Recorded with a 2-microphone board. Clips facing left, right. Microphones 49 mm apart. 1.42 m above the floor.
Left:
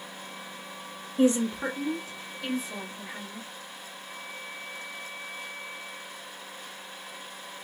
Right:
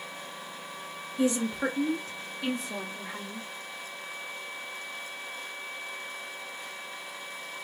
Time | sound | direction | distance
1.2 | a woman speaking | 30° left (ahead or behind) | 0.5 m